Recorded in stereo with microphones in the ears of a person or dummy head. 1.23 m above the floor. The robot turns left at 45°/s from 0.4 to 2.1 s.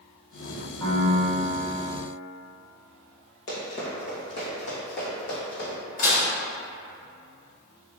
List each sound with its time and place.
0.8 s a piano: 160° left, 1.7 m; by 1.9 s 110° left, 1.7 m
3.5 s running footsteps: 40° left (ahead or behind), 1.6 m; by 5.8 s 70° left (ahead or behind), 3.5 m
6.0 s dishes clattering: 45° left (ahead or behind), 1.5 m